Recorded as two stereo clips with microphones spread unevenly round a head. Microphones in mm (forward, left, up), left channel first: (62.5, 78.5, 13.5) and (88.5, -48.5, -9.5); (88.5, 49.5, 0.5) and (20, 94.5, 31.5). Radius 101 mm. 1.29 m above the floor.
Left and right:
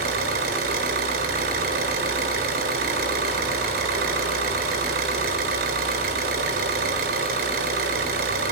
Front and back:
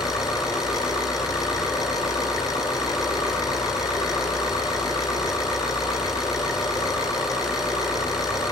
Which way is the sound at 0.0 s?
110° right.